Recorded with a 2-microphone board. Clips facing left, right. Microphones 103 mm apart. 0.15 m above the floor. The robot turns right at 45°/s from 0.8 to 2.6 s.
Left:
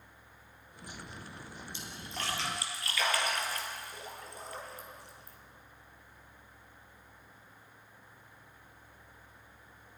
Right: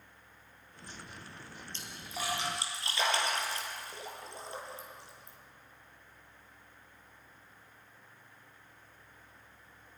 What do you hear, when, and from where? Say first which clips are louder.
1.7 s a splash: right 1 dB; 10° left (ahead or behind), 3.5 m; by 5.4 s 25° right (ahead or behind), 3.5 m